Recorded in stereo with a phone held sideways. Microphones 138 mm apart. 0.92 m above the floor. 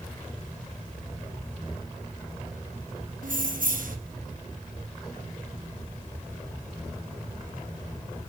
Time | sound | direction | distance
3.2 | keys jangling | 70° right (ahead or behind) | 0.8 m